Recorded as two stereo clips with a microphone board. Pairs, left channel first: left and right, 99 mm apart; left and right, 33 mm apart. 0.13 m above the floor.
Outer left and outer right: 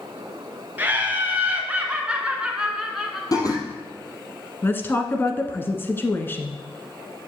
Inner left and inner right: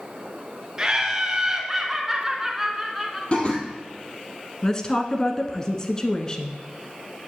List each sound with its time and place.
0.8 s laughter: 20° right (ahead or behind), 2 m; by 3.2 s centre (ahead or behind), 1.8 m
3.3 s laughter: 40° left (ahead or behind), 3 m
4.6 s a woman speaking: 20° left (ahead or behind), 1.2 m